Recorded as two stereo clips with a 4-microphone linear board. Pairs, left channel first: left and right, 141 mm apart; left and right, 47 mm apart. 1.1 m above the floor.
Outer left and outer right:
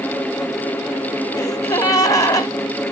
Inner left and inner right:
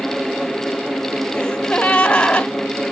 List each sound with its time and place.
1.4 s a gasp: 25° left (ahead or behind), 1.0 m